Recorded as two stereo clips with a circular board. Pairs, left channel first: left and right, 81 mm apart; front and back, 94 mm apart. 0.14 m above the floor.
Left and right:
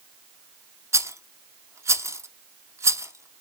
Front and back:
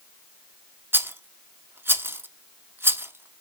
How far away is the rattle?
About 0.6 m.